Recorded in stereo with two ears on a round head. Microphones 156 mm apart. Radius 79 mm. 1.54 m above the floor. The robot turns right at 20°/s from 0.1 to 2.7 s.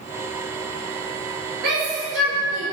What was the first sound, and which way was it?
A shout, 65° right (ahead or behind).